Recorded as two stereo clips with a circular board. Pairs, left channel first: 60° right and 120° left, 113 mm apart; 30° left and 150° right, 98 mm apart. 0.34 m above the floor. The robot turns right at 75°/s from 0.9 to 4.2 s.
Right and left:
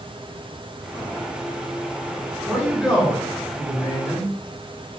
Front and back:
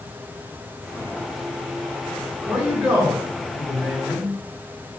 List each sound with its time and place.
2.5 s a man speaking: 160° left, 1.1 m; by 4.3 s 70° right, 1.1 m